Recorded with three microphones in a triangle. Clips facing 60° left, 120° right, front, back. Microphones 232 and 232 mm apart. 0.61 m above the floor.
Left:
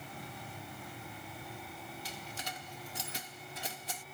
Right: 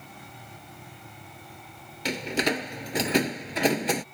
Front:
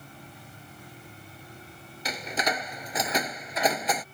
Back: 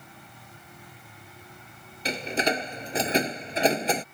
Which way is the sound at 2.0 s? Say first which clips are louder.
Right 19 dB, back 5 dB; 120° right.